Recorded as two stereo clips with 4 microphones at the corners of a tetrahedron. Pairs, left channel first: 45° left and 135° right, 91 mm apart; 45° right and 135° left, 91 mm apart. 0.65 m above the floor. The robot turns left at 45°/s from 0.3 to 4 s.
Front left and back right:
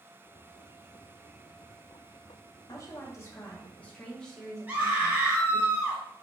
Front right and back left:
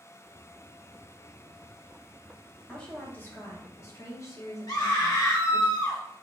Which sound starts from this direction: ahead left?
A woman speaking, at 2.7 s.